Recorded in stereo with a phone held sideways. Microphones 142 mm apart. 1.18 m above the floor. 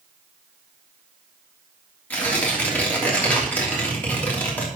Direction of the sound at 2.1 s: 10° left (ahead or behind).